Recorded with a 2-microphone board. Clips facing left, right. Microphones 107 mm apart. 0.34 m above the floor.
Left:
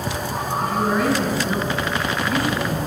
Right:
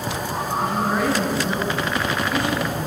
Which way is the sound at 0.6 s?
25° right (ahead or behind).